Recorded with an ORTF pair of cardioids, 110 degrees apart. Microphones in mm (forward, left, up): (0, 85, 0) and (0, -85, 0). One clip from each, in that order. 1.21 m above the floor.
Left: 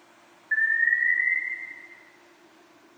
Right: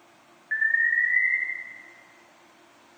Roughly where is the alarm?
Ahead.